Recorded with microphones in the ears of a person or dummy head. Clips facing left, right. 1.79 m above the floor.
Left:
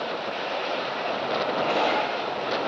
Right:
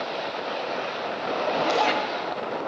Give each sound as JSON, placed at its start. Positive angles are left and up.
{"t": 1.5, "sound": "a zipper", "side_deg": -75, "distance_m": 1.4}